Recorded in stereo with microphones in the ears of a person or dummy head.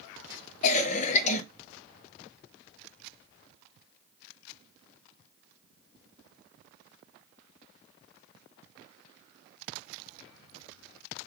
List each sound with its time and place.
0.6 s a cough: 35° left (ahead or behind), 0.5 m